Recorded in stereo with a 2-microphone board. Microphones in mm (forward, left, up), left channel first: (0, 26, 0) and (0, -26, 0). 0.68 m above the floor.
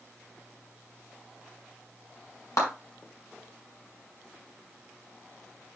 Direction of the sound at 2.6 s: 85° left.